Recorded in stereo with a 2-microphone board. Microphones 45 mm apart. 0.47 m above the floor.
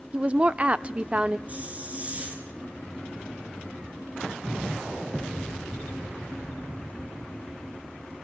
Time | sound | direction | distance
0.1 | a woman speaking | 25° right (ahead or behind) | 0.7 m
1.5 | a hiss | 30° right (ahead or behind) | 3 m